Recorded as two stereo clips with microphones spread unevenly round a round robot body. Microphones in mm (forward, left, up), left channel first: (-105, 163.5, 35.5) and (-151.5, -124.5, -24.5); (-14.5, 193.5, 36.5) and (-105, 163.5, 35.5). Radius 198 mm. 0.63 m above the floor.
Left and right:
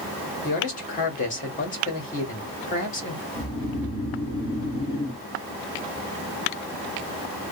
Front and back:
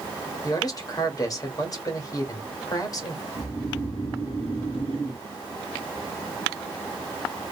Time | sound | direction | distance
0.4 | a man speaking | 15° left | 1.1 m
3.4 | snoring | 5° left | 1.8 m